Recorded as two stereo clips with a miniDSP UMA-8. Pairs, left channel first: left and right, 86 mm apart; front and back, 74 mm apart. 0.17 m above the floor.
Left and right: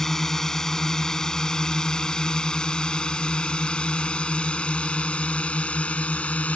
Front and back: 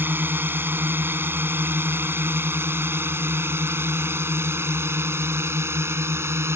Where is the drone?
170° left; by 6.6 s 155° left.